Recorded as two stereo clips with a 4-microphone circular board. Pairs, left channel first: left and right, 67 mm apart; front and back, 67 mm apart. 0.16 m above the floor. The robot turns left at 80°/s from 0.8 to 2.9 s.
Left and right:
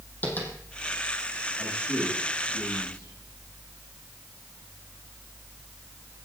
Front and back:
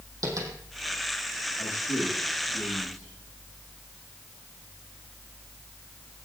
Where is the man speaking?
20° left, 7.5 m; by 3.1 s 85° right, 7.5 m.